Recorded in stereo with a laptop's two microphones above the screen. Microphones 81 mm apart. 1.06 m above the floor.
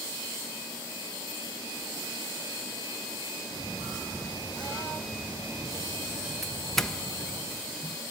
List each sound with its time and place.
3.5 s footsteps: 75° right (ahead or behind), 10 m; by 7.4 s 80° right, 8.5 m
6.4 s a doorbell: centre (ahead or behind), 1.0 m